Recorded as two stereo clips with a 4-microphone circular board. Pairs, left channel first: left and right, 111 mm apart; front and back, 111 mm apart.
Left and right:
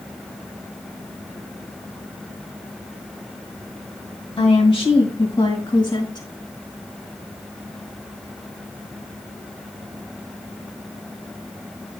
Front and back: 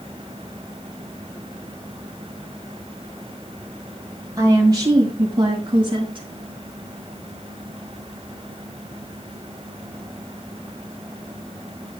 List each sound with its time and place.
4.4 s a woman speaking: 125° left, 2.5 m; by 6.3 s 150° left, 3 m